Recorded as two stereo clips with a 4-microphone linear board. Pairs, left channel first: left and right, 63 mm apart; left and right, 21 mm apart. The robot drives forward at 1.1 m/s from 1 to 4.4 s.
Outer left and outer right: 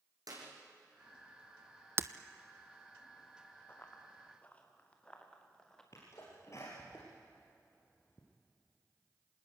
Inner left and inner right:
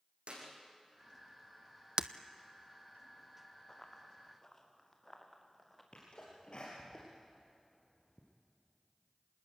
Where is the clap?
75° right (ahead or behind), 7 m.